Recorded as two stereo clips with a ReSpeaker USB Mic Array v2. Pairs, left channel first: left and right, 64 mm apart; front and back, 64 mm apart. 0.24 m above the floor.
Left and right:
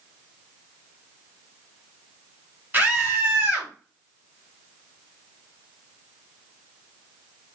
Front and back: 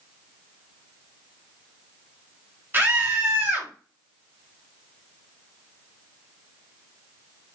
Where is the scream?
140° right, 1.8 m.